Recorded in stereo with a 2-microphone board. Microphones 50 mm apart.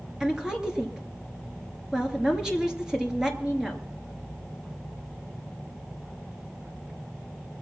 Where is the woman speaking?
10° right (ahead or behind), 1.7 m.